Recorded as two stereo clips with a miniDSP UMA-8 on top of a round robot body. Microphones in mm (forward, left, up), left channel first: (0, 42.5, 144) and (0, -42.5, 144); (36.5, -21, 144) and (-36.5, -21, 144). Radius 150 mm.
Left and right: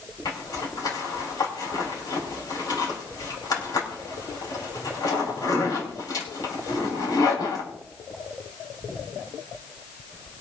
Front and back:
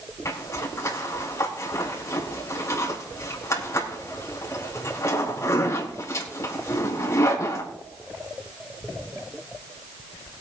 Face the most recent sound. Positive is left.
turn(degrees=50)